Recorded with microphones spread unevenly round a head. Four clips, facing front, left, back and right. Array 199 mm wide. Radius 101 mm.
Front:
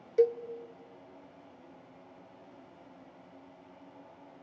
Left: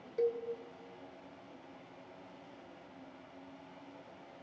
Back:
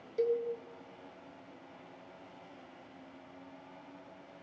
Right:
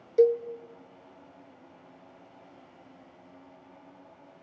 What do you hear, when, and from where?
0.2 s a cowbell: 75° right, 0.5 m